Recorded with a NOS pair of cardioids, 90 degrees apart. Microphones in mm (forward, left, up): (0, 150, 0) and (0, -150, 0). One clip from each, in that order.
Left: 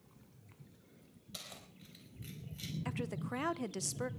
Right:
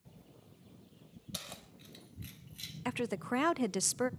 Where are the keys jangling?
40° right, 4.5 m; by 2.8 s 20° right, 5 m.